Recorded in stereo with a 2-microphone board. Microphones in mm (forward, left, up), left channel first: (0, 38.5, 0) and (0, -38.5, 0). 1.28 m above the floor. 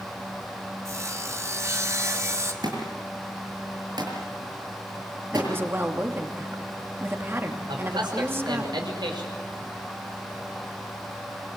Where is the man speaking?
85° right, 6 m.